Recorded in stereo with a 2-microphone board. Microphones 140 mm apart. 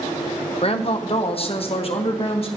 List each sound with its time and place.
0.6 s a woman speaking: 45° left (ahead or behind), 0.9 m